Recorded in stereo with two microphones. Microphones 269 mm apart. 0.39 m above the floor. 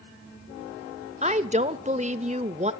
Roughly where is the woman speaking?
Right.